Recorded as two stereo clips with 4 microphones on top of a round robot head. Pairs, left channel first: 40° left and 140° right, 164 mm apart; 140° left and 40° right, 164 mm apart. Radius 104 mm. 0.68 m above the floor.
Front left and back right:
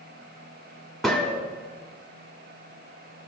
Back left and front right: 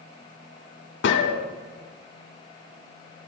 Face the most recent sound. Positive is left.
turn(degrees=130)